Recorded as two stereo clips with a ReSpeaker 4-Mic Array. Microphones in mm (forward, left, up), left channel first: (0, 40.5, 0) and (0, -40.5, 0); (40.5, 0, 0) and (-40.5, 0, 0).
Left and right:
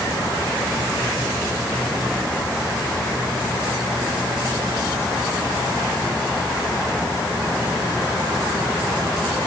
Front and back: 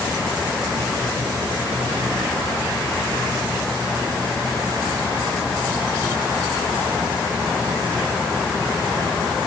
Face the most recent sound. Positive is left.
No sound to turn to.